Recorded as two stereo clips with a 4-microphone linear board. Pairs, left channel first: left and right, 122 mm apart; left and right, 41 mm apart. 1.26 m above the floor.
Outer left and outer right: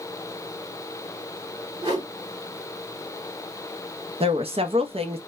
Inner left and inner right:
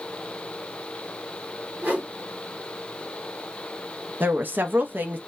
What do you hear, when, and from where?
1.8 s a whoosh: 45° right (ahead or behind), 1.4 m
4.2 s a woman speaking: 50° right (ahead or behind), 0.5 m